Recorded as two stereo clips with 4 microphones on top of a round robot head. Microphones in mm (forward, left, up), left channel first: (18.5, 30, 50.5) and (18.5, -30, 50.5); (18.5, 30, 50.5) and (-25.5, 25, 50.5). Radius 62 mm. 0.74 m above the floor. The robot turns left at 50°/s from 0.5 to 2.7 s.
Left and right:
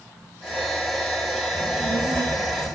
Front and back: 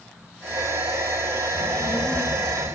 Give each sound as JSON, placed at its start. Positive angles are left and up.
{"t": 1.5, "sound": "a child speaking", "azimuth_deg": -40, "distance_m": 4.0}